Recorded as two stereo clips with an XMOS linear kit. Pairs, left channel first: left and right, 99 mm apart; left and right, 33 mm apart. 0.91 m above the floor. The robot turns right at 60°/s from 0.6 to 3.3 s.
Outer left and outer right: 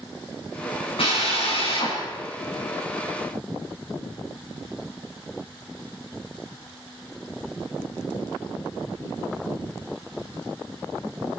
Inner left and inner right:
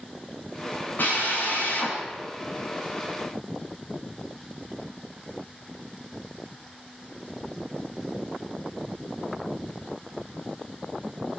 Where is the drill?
65° left, 7 m; by 2.0 s 125° left, 7 m.